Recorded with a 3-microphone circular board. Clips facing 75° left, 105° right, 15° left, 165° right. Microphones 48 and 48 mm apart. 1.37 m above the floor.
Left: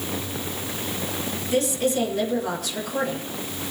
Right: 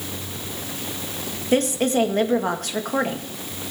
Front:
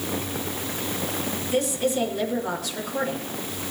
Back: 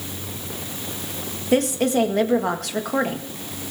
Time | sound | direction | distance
1.5 | a woman speaking | 140° right | 2.0 m